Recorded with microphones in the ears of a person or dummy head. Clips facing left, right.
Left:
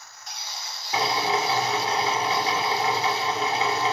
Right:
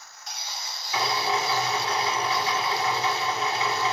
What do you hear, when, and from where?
0.9 s a drill: 40° left (ahead or behind), 1.9 m